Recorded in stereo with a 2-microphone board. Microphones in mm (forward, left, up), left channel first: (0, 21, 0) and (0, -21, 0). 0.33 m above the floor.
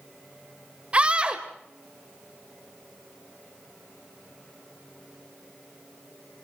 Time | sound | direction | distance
0.9 | a scream | 30° right (ahead or behind) | 1.0 m